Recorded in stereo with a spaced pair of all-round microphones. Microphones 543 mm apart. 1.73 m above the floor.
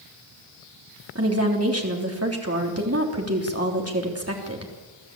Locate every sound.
1.1 s a woman speaking: 25° right (ahead or behind), 3.5 m